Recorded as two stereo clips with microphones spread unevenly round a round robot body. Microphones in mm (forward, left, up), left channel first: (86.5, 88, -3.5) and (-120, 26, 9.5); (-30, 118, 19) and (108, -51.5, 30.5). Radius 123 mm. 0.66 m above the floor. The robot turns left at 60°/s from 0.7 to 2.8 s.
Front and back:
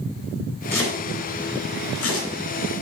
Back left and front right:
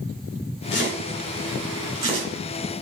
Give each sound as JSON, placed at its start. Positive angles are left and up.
{"t": 0.7, "sound": "chopping", "azimuth_deg": 95, "distance_m": 3.5}